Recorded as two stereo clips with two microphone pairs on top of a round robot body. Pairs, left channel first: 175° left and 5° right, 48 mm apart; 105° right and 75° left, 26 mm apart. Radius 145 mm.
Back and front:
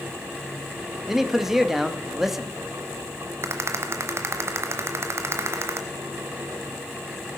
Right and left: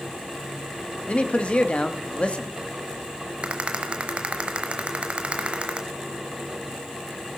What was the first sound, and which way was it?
A man speaking, 90° right.